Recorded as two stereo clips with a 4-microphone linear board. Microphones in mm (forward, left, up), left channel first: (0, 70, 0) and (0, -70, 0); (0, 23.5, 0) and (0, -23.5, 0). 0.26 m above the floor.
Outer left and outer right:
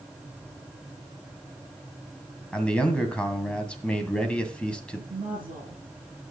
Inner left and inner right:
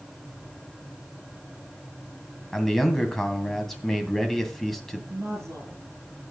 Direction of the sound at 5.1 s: 70° right (ahead or behind).